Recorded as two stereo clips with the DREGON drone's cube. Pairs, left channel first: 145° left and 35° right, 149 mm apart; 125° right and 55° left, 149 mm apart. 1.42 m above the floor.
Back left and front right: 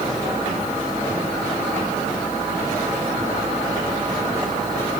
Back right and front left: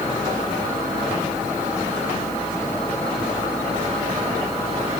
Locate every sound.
Only background noise.